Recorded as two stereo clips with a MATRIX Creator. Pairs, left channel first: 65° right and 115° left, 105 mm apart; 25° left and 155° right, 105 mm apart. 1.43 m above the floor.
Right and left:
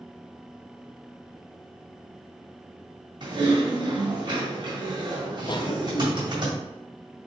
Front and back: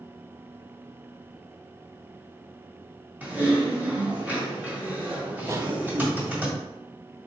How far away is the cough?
About 0.6 m.